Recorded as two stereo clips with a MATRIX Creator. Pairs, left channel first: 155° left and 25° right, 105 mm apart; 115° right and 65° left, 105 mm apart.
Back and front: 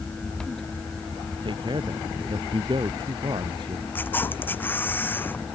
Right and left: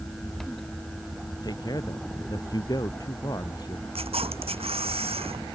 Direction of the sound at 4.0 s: 85° left.